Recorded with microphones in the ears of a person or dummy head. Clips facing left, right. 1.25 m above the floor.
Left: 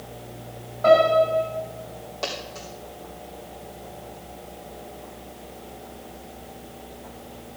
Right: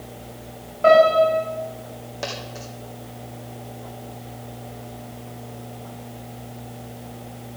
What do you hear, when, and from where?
0.8 s a piano: 40° right (ahead or behind), 7 m
2.2 s a dropped coin: 20° right (ahead or behind), 3.5 m